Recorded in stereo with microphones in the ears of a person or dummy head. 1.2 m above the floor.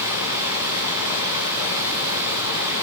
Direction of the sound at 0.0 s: 15° right (ahead or behind).